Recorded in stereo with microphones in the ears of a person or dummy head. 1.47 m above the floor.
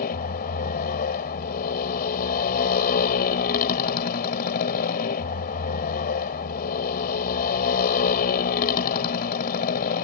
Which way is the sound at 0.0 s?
55° left (ahead or behind).